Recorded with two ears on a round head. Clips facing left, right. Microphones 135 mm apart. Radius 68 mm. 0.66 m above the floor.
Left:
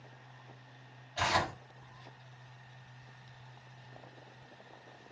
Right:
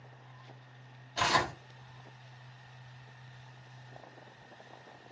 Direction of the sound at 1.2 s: 45° right (ahead or behind).